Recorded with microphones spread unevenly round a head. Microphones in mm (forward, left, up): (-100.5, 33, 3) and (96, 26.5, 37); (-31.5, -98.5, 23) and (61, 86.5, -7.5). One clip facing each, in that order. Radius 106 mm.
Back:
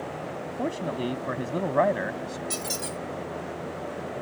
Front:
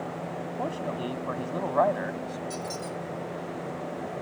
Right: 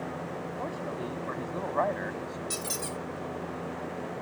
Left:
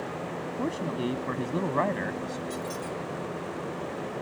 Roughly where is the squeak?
Behind right.